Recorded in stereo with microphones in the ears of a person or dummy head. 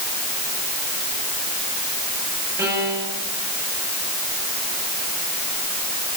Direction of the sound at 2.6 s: 10° right (ahead or behind).